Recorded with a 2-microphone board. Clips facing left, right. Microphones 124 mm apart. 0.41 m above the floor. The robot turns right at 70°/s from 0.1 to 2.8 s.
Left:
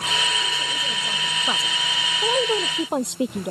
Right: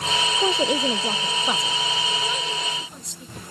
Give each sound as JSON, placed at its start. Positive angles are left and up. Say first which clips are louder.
{"t": 0.4, "sound": "a woman speaking", "louder": "right 9 dB", "azimuth_deg": -85}